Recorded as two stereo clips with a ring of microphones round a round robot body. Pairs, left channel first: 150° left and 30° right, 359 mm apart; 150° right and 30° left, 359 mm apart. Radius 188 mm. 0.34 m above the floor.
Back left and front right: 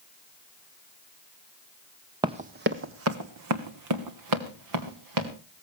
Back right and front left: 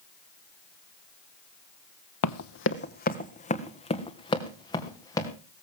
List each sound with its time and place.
2.2 s running footsteps: 110° right, 0.6 m; by 5.3 s 70° right, 3 m